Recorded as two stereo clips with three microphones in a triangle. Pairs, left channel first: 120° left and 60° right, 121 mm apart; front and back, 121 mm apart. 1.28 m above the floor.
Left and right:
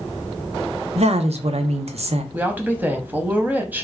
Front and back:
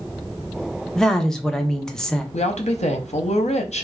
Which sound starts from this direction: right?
A woman speaking, at 0.9 s.